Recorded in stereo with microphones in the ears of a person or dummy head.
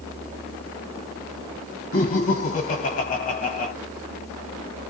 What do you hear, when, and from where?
1.9 s laughter: 35° left (ahead or behind), 1.0 m